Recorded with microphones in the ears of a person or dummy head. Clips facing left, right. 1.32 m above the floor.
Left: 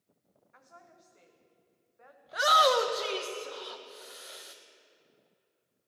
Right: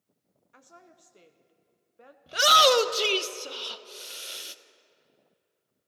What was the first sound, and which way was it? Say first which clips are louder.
A woman speaking: right 2 dB; 40° right (ahead or behind).